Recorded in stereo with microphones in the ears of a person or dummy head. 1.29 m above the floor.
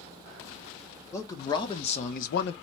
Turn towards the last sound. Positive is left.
turn(degrees=60)  # may be behind; listen again after turning